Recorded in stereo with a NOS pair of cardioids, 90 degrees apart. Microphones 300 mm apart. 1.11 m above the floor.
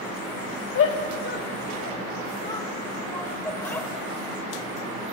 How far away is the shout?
About 2.5 m.